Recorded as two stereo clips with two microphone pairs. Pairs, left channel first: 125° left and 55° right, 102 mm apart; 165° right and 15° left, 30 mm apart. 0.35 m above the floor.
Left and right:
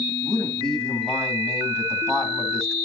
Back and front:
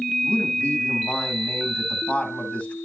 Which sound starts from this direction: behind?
A man speaking, at 0.2 s.